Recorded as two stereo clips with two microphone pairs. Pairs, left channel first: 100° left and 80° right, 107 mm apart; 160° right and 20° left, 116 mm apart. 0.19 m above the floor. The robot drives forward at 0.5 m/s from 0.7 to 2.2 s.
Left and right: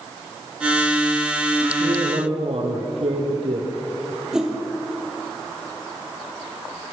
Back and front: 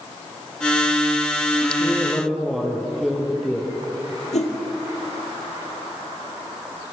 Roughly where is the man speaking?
Ahead right.